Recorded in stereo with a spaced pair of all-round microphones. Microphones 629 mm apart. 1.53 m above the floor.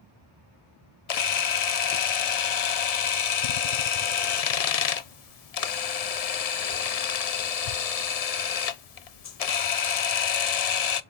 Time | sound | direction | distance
1.1 | a camera shutter | 70° left (ahead or behind) | 0.7 m